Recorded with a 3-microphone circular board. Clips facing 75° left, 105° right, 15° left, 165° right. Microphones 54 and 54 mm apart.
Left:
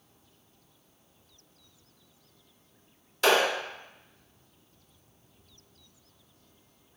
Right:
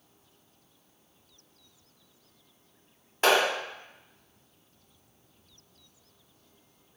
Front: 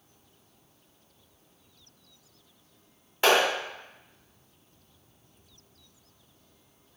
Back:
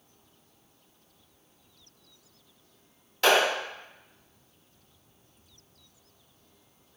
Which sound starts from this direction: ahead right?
A clap, at 3.2 s.